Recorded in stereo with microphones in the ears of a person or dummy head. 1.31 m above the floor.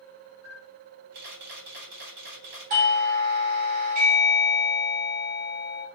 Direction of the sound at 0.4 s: 65° right (ahead or behind).